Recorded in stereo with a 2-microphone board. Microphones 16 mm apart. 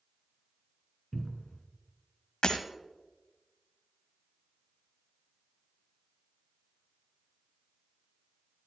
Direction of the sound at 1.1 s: Centre (ahead or behind).